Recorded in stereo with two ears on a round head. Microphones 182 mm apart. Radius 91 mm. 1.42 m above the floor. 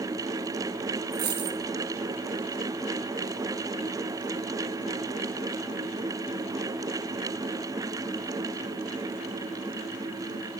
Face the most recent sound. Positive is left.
turn(degrees=-50)  # may be behind; listen again after turning